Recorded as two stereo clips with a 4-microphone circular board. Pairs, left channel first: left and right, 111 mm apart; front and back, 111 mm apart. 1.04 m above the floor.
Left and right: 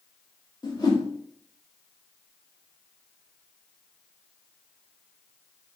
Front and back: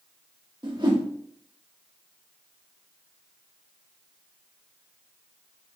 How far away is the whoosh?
About 1.7 m.